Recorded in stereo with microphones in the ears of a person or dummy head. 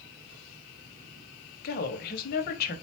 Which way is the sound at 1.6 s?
40° left (ahead or behind).